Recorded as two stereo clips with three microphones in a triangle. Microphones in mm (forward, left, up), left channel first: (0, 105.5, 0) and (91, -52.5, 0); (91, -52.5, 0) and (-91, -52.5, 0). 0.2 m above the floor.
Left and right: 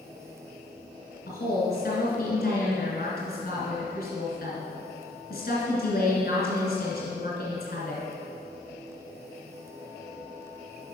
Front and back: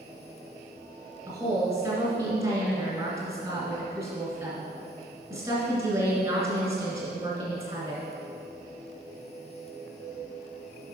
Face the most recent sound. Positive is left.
turn(degrees=130)